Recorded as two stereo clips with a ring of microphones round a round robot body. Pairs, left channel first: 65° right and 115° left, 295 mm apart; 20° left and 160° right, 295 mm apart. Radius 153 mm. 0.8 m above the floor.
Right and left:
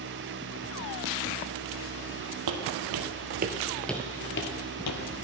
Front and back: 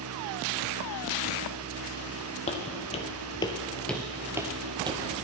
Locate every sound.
2.5 s footsteps: 90° left, 1.5 m; by 5.0 s 85° right, 1.3 m